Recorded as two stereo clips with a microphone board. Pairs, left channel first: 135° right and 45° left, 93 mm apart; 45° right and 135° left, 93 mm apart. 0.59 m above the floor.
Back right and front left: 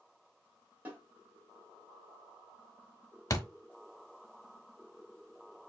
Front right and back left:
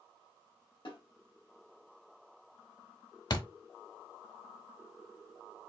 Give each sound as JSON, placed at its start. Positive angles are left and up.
{"t": 0.8, "sound": "a snare drum", "azimuth_deg": -25, "distance_m": 1.8}
{"t": 3.3, "sound": "a thud", "azimuth_deg": -85, "distance_m": 0.6}